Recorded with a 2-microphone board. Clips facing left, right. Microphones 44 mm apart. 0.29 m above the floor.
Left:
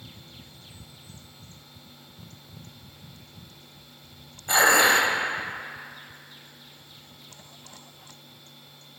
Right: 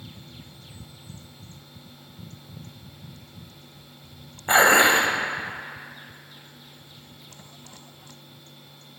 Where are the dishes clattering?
35° right (ahead or behind), 0.8 m.